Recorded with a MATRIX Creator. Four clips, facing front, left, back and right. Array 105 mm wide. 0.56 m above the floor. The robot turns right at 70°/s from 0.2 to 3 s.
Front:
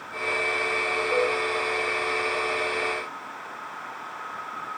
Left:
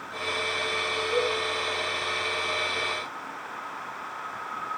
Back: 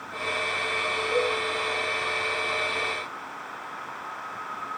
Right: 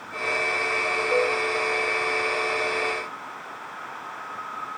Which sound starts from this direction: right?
A cowbell, at 1.1 s.